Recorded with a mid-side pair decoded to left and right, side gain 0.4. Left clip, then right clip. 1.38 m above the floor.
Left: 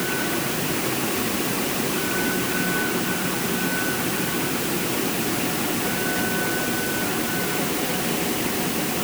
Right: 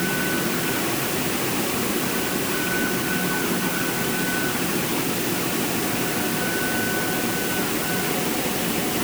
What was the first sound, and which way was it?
Only background noise.